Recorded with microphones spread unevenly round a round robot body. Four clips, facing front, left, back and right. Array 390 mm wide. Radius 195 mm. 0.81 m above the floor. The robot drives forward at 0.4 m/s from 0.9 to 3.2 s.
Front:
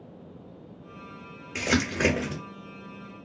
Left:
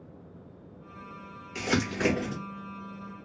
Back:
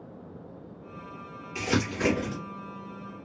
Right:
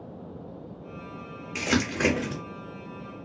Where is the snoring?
No snoring in this recording.